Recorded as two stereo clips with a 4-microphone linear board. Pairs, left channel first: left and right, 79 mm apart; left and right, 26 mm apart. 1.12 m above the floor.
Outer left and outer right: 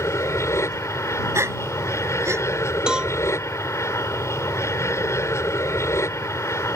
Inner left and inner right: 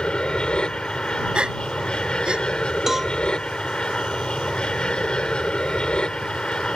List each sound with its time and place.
0.0 s an aircraft: 35° left (ahead or behind)
1.4 s a gasp: 35° right (ahead or behind)
2.9 s a cowbell: 10° right (ahead or behind)